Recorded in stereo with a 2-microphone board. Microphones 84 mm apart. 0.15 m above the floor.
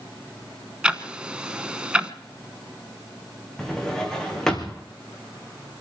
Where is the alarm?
No alarm in this recording.